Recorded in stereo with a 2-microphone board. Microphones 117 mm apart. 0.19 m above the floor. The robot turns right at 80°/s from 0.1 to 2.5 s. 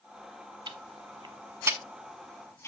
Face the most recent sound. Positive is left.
turn(degrees=25)  # may be behind; listen again after turning